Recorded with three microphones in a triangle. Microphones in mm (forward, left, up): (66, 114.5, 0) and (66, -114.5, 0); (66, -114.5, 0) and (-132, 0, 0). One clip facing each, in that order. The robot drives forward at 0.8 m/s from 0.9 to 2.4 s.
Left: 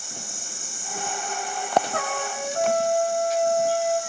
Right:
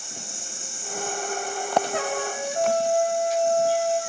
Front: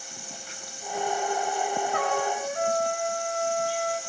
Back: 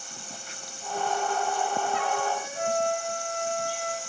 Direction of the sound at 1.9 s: 15° right.